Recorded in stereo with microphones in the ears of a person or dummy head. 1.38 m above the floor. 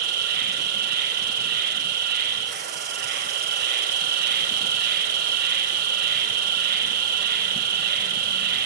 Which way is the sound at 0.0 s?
50° right (ahead or behind).